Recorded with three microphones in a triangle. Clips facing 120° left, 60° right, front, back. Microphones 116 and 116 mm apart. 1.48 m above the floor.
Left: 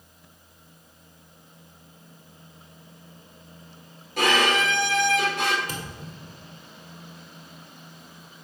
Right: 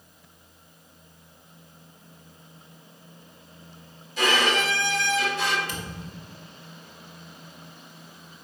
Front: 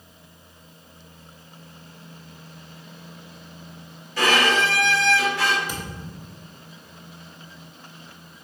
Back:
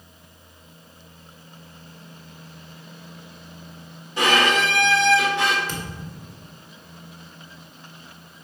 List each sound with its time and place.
4.2 s a violin: 115° left, 1.8 m
5.7 s a thud: 75° left, 1.8 m